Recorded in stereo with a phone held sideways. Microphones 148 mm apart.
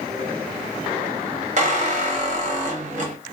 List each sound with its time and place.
1.6 s a squeak: 50° right (ahead or behind), 0.6 m